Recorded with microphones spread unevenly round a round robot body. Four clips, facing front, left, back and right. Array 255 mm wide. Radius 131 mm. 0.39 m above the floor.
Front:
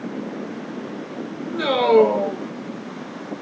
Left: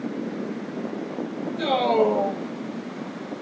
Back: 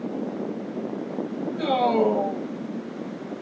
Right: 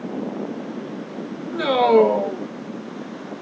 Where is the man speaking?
55° right, 5.5 m.